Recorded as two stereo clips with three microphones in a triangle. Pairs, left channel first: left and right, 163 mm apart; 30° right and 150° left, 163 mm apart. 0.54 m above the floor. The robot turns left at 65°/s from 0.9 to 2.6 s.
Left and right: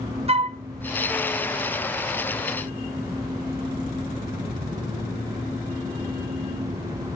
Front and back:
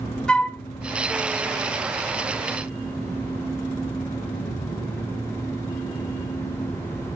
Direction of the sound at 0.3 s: 110° right.